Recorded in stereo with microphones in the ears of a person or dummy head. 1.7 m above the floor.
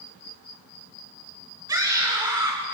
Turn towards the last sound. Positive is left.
turn(degrees=-20)  # may be behind; listen again after turning